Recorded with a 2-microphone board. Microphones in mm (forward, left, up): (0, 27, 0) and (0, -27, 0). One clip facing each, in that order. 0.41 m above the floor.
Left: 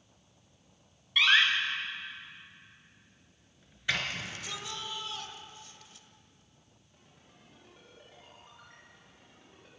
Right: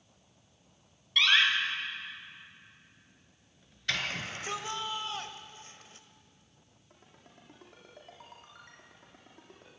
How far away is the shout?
About 2.0 m.